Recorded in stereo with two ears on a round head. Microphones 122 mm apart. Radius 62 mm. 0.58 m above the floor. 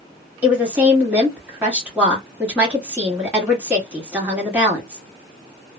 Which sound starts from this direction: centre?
A woman speaking, at 0.4 s.